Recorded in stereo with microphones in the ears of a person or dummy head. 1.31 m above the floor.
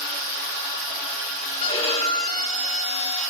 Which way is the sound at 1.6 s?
40° left (ahead or behind).